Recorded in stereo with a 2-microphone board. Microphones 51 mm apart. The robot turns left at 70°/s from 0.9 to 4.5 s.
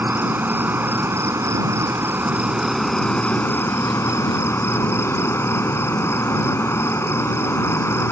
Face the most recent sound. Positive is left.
turn(degrees=60)